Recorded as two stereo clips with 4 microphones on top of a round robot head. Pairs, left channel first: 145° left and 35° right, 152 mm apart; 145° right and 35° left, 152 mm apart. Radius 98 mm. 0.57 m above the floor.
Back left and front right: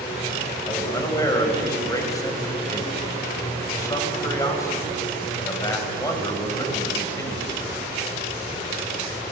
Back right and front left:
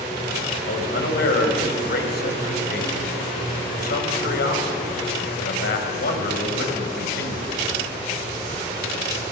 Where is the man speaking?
145° right, 4 m.